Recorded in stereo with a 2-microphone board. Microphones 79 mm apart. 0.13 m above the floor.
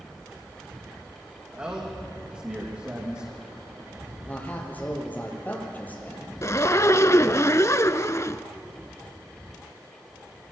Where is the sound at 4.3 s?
20° left (ahead or behind), 4.5 m.